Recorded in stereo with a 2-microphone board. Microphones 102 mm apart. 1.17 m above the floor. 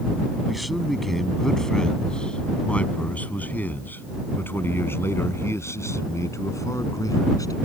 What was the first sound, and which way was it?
A man speaking, centre (ahead or behind).